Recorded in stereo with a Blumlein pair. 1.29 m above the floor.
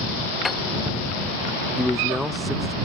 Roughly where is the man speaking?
Ahead.